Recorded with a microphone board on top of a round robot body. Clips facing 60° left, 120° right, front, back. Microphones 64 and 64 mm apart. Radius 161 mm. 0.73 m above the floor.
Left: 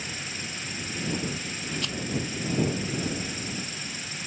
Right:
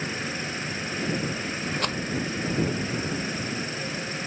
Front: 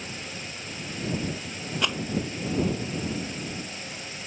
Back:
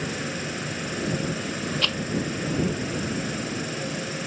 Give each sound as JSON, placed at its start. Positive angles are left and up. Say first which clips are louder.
{"t": 0.0, "sound": "an insect", "louder": "right 6 dB, back 8 dB", "azimuth_deg": 180}
{"t": 1.8, "sound": "a rattle", "louder": "right 6 dB, front 3 dB", "azimuth_deg": -75}